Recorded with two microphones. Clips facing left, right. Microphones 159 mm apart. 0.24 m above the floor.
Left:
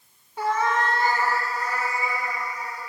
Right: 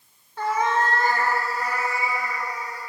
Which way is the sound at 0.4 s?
15° left (ahead or behind).